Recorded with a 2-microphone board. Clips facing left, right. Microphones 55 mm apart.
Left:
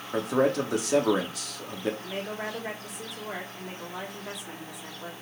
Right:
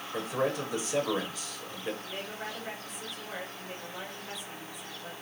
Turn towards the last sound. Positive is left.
turn(degrees=85)